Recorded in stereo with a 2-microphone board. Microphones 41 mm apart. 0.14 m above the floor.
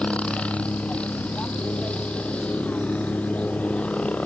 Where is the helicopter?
30° left (ahead or behind).